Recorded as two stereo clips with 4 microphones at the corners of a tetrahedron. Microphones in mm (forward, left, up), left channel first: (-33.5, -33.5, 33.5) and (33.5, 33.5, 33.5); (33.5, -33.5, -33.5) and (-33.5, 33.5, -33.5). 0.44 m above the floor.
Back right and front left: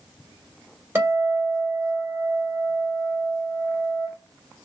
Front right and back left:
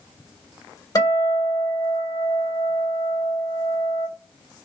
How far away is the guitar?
About 2 m.